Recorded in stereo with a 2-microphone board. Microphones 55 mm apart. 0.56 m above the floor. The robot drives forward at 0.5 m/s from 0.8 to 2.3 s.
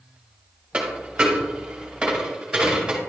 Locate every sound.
0.7 s a dropped coin: 20° right (ahead or behind), 1.4 m; by 3.0 s 15° right (ahead or behind), 2 m